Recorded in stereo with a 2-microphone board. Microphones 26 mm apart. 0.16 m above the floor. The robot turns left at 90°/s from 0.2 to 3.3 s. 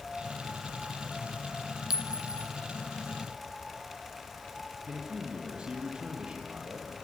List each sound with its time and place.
1.9 s a clink: 20° right (ahead or behind), 0.9 m; by 2.5 s 50° right (ahead or behind), 0.9 m
4.9 s a man speaking: 40° right (ahead or behind), 4.5 m